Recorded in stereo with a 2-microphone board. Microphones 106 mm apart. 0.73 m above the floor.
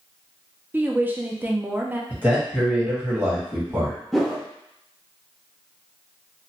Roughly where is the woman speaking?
Centre.